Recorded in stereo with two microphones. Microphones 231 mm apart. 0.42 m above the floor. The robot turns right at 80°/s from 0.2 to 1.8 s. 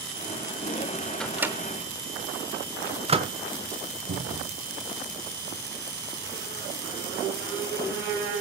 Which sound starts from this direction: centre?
A microwave, at 1.2 s.